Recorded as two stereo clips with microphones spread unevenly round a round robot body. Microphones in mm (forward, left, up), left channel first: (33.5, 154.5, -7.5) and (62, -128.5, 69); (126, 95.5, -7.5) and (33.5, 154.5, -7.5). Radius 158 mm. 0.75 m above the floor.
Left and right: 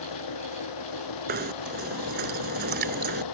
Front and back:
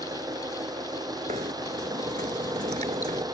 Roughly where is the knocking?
Behind right.